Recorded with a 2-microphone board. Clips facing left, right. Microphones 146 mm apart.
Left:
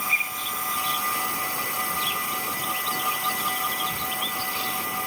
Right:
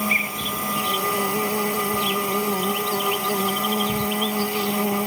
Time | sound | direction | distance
0.0 | an insect | 70° right (ahead or behind) | ?